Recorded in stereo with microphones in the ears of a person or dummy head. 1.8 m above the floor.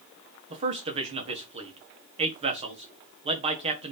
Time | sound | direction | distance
0.5 | a man speaking | 40° right (ahead or behind) | 1.4 m